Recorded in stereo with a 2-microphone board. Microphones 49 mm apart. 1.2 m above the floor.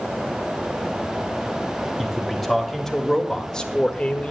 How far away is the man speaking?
About 2.5 m.